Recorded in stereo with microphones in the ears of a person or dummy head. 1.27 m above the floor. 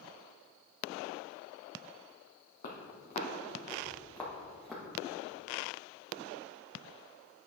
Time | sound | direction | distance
2.6 | footsteps | 55° left (ahead or behind) | 2 m